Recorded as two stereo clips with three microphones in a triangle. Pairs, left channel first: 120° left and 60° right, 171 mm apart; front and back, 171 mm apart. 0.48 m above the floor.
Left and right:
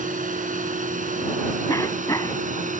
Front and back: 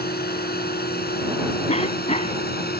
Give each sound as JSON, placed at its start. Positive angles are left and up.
{"t": 0.0, "sound": "a drone", "azimuth_deg": -20}
{"t": 1.7, "sound": "a cough", "azimuth_deg": 50}